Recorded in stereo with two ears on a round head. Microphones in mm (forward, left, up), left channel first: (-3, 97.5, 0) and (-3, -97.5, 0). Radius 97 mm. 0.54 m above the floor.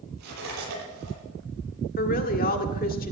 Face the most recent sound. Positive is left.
turn(degrees=40)  # may be behind; listen again after turning